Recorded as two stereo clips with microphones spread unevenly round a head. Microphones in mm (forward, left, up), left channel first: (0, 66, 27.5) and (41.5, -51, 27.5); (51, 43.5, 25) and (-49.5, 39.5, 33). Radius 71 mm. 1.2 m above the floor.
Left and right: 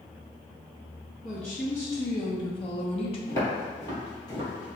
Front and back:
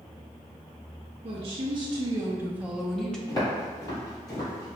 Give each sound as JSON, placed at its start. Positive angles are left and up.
{"t": 1.2, "sound": "a woman speaking", "azimuth_deg": -165, "distance_m": 0.9}
{"t": 3.3, "sound": "footsteps", "azimuth_deg": 50, "distance_m": 1.7}